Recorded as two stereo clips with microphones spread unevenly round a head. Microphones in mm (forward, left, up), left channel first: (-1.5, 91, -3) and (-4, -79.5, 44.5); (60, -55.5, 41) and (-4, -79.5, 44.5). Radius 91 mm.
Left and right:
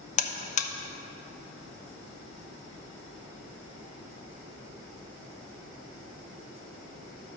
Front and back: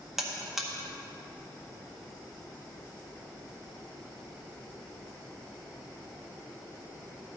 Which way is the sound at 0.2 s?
115° left.